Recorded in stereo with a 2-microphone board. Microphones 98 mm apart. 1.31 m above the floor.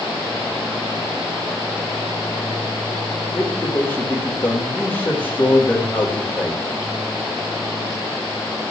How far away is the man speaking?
About 3.5 m.